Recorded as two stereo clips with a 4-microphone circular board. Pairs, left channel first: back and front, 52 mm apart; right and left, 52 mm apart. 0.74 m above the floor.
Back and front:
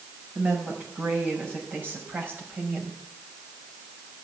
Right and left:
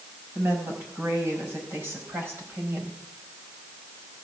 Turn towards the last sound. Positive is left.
turn(degrees=50)